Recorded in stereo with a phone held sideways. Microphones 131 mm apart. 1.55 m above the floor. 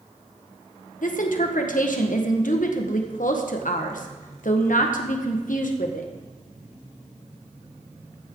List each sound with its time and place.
1.0 s a woman speaking: 80° left, 1.6 m